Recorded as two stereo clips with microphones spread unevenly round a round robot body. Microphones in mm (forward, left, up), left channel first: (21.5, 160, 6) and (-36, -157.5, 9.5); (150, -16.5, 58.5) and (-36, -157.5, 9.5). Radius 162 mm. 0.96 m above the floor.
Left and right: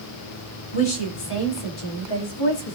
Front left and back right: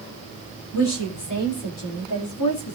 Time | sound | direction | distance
0.7 | a woman speaking | 60° left | 3 m